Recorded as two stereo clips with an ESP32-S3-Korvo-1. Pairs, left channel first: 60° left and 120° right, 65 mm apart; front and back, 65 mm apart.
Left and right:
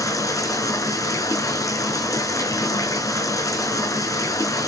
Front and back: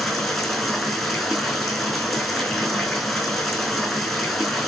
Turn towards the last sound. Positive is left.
turn(degrees=85)